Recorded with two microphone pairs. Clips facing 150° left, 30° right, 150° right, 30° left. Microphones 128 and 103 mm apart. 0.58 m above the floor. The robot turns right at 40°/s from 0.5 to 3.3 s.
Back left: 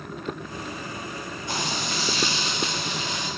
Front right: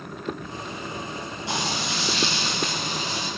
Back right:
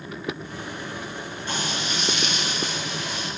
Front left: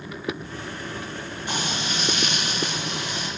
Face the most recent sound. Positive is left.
turn(degrees=30)